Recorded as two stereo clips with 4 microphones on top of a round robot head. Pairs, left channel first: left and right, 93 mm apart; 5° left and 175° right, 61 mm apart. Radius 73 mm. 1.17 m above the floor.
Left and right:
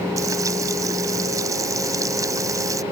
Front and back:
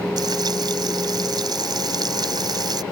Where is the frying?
155° right.